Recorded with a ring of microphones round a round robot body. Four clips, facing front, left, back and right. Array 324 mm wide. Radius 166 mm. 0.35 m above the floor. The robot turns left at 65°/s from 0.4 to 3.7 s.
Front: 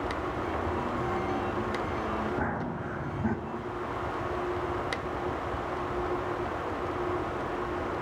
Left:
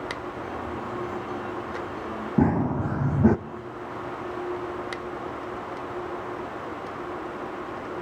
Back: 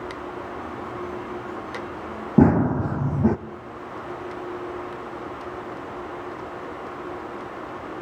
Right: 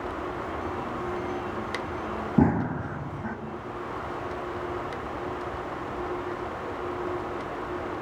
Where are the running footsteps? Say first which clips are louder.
Left 1 dB, back 14 dB; 175° right, 1.0 m; by 3.4 s 120° left, 1.0 m.